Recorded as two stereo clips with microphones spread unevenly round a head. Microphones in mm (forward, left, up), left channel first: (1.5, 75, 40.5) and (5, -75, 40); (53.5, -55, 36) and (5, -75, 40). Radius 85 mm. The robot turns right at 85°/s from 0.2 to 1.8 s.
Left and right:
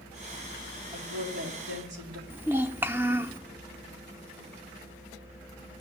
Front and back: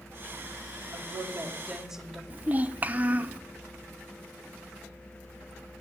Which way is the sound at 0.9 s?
155° right.